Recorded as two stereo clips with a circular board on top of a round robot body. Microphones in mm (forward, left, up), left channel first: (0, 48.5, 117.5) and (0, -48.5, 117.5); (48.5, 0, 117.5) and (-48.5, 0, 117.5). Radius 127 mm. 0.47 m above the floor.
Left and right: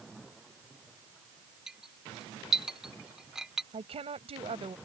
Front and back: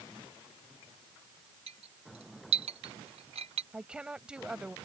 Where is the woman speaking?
100° right.